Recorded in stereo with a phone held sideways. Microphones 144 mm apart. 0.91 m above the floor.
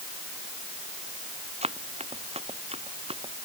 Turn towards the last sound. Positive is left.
turn(degrees=-40)  # may be behind; listen again after turning